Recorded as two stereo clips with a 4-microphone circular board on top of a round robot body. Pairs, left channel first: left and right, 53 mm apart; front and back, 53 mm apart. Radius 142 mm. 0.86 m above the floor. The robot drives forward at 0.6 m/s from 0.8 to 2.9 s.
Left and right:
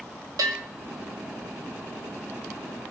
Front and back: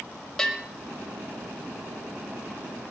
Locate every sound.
0.4 s a bell: 85° right, 1.1 m